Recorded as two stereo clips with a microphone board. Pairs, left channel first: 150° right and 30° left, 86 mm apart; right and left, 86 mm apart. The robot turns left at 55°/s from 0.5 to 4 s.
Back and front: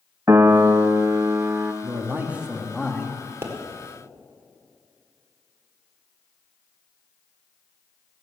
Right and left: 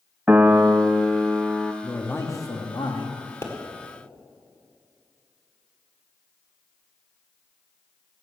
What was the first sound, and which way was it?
A piano, 35° left.